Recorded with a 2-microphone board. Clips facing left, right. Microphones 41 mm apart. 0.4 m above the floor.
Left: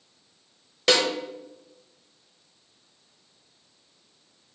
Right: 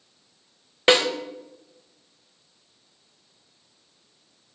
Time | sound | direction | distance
0.9 | a snare drum | 25° right (ahead or behind) | 0.9 m